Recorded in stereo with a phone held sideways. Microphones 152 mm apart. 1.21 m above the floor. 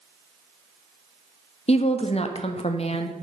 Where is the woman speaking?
45° left (ahead or behind), 0.7 m.